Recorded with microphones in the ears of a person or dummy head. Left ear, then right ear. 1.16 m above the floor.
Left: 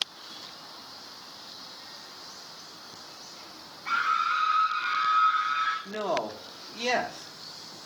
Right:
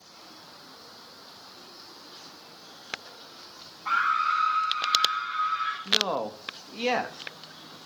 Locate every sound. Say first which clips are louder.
3.9 s a scream: right 2 dB; 40° right (ahead or behind), 0.9 m; by 5.8 s 5° left (ahead or behind), 3 m
5.8 s a man speaking: right 4 dB; 25° right (ahead or behind), 1.6 m